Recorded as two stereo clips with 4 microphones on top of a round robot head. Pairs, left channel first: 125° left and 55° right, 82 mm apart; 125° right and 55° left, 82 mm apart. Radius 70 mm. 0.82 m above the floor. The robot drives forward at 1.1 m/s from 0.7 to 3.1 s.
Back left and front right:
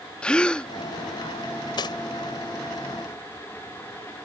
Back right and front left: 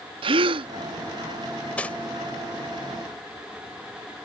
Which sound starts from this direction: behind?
Cutlery clinking, at 1.8 s.